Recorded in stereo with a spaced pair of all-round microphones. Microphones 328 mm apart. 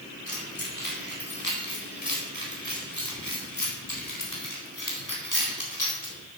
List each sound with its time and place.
0.3 s keys jangling: 80° left, 4.5 m; by 6.2 s 60° left (ahead or behind), 4 m